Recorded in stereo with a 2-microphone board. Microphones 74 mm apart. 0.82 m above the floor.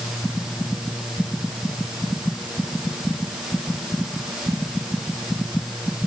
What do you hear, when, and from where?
Only background noise.